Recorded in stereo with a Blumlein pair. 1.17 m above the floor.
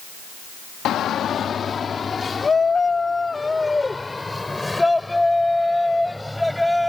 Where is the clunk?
I don't hear a clunk.